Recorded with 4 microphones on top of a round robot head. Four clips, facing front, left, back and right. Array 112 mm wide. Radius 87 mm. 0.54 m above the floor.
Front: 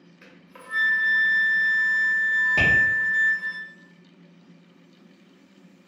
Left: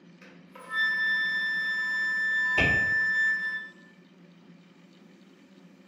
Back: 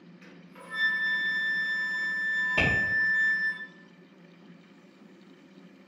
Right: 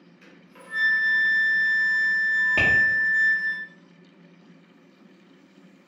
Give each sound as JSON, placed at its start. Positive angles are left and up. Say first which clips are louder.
{"t": 0.2, "sound": "a flute", "louder": "left 1 dB, front 3 dB", "azimuth_deg": 20, "distance_m": 0.5}
{"t": 2.6, "sound": "tapping", "louder": "right 2 dB, front 4 dB", "azimuth_deg": -65, "distance_m": 1.2}